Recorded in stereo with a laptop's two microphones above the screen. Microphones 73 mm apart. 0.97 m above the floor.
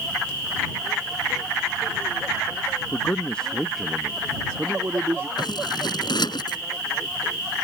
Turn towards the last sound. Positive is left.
turn(degrees=70)  # may be behind; listen again after turning